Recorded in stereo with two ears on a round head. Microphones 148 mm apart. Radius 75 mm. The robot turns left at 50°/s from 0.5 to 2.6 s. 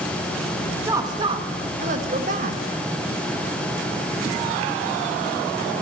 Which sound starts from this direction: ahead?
A woman speaking, at 0.8 s.